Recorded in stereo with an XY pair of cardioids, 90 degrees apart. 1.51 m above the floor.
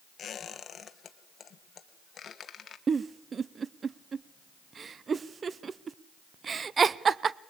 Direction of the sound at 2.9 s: 45° right.